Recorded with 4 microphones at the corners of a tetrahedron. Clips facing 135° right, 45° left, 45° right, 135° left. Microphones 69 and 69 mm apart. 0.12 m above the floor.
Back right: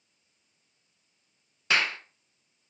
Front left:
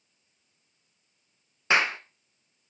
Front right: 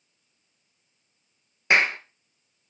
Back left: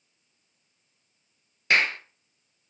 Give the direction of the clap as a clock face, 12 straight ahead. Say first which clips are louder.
Front left 3 dB, front right 2 dB; 12 o'clock.